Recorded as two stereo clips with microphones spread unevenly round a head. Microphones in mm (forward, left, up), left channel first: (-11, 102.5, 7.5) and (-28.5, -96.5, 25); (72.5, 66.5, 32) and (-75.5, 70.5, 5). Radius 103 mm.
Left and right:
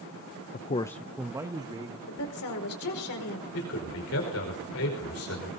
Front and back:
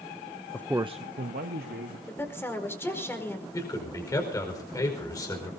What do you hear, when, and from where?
0.5 s a man speaking: 75° left, 0.5 m; by 2.0 s 165° right, 1.8 m
2.1 s a woman speaking: 75° left, 5 m
3.5 s a man speaking: 65° left, 5 m